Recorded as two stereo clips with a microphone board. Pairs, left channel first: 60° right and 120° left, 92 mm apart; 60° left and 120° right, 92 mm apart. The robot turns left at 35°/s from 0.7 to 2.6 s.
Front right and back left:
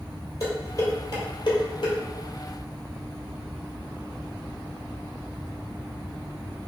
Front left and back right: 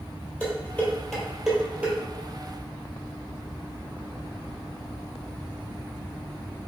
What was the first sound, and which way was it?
Dishes clattering, 10° right.